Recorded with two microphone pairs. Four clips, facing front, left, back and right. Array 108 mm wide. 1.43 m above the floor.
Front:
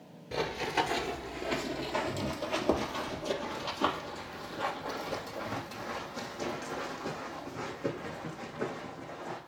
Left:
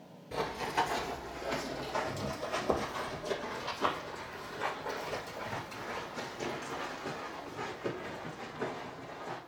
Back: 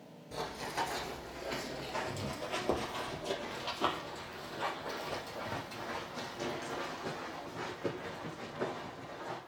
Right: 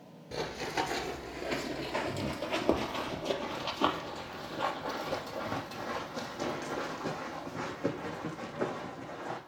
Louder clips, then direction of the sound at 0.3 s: Left 2 dB, front 7 dB; 20° right.